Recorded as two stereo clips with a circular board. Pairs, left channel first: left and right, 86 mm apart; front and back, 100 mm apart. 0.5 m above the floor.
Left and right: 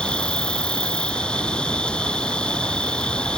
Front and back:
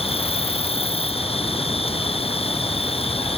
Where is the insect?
10° left.